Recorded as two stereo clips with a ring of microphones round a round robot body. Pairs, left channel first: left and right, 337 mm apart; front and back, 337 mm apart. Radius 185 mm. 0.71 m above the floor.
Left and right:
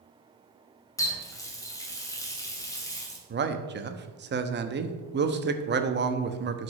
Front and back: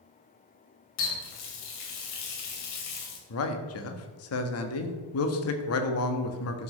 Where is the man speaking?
35° right, 1.0 m.